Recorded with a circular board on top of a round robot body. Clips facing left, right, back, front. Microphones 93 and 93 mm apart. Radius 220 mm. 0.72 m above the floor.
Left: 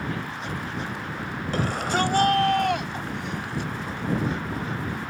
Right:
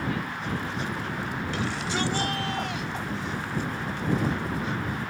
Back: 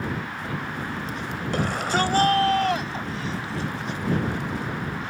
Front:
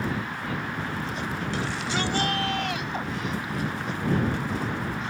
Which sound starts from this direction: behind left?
A shout, at 1.5 s.